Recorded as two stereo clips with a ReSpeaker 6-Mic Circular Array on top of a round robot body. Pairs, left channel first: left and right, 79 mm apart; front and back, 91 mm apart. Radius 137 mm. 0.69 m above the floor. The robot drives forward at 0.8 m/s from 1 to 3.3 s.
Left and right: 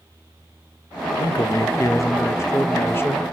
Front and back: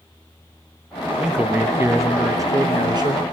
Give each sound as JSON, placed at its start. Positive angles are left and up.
{"t": 1.2, "sound": "a man speaking", "azimuth_deg": 105, "distance_m": 1.5}